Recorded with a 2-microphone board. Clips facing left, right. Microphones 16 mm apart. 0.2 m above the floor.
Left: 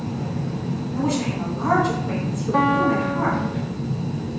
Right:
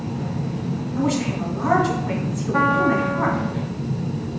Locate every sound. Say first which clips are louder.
1.0 s a woman speaking: right 1 dB; 5° right (ahead or behind), 1.7 m
2.5 s a piano: right 1 dB; 50° left (ahead or behind), 1.6 m